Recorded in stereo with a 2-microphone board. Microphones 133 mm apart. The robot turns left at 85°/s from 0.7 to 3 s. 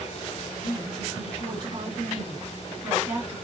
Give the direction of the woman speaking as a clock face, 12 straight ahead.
11 o'clock.